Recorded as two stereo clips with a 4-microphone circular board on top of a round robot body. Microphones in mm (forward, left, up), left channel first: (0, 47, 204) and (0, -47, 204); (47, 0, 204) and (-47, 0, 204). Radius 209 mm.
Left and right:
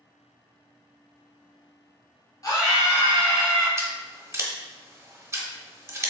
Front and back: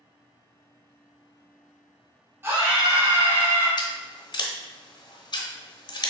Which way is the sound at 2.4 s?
125° left.